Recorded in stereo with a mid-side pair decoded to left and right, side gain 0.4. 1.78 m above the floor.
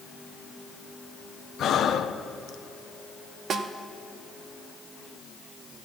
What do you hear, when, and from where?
1.6 s breathing: 65° left, 0.7 m
3.5 s a snare drum: 65° right, 0.7 m